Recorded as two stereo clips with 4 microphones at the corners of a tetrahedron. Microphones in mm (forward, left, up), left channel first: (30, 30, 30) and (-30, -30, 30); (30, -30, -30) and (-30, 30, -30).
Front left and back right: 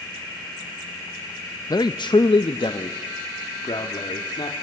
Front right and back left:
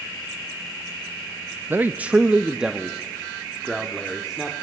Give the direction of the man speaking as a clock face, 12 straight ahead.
9 o'clock.